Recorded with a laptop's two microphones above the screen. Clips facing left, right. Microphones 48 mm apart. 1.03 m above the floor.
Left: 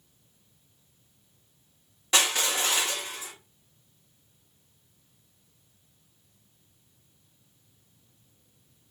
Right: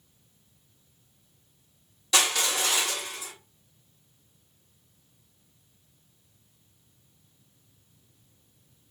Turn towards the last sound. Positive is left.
turn(degrees=30)  # may be behind; listen again after turning